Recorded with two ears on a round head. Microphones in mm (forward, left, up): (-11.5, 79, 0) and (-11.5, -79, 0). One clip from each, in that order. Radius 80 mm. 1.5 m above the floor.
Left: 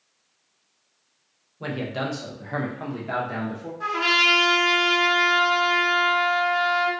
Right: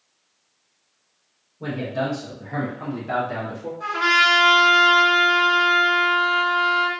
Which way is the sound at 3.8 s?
35° left (ahead or behind).